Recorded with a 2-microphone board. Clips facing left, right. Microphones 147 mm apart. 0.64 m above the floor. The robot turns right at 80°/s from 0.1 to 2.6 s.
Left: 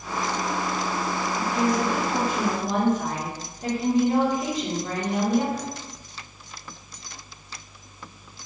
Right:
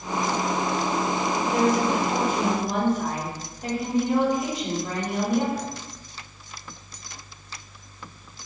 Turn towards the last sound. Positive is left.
turn(degrees=55)